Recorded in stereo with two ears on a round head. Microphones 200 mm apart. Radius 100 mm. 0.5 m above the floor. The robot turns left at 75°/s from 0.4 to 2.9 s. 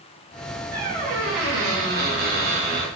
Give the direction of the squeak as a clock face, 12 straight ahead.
12 o'clock.